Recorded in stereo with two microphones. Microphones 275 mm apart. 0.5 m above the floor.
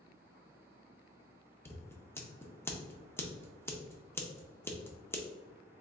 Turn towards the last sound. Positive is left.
turn(degrees=10)  # may be behind; listen again after turning